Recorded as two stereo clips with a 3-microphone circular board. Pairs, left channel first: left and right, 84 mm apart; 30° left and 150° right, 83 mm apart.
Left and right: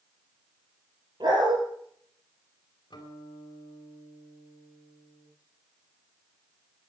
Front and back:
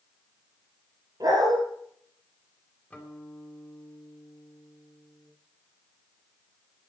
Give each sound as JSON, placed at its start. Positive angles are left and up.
{"t": 1.2, "sound": "a dog barking", "azimuth_deg": -115, "distance_m": 6.0}
{"t": 2.9, "sound": "a guitar", "azimuth_deg": 105, "distance_m": 4.0}